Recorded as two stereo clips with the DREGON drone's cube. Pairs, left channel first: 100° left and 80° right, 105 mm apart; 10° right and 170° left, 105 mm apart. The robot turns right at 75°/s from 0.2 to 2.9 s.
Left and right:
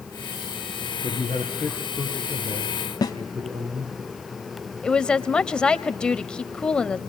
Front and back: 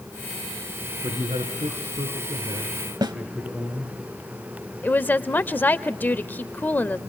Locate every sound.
1.0 s a man speaking: 115° left, 5 m; by 4.0 s 105° right, 5 m
3.0 s a snare drum: 135° left, 2 m
4.8 s a woman speaking: 35° left, 1.2 m